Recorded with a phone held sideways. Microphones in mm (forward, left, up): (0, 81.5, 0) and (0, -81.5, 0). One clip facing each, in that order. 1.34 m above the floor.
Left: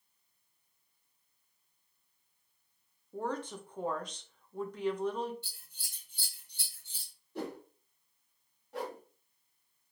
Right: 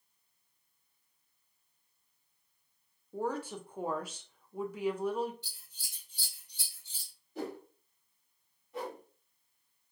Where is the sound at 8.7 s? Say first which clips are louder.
Left 1 dB; 80° left, 0.9 m.